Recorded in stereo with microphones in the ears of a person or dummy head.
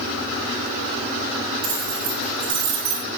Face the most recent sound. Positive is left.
turn(degrees=-55)  # may be behind; listen again after turning